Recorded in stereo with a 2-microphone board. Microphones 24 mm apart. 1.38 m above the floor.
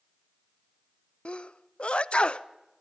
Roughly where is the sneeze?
Left.